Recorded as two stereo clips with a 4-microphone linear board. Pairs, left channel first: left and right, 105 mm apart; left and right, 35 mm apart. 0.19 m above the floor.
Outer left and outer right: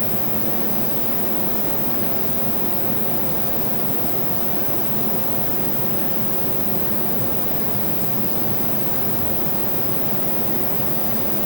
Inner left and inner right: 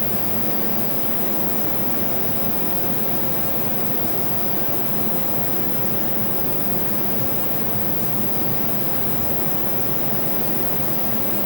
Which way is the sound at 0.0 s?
50° right (ahead or behind).